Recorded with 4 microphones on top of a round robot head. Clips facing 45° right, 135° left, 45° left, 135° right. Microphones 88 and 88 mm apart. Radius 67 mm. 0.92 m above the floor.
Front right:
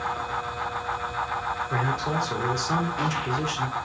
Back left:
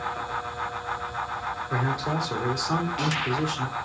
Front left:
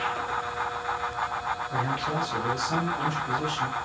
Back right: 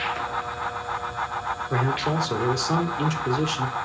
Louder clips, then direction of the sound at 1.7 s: Back left 1 dB, back right 6 dB; 145° right.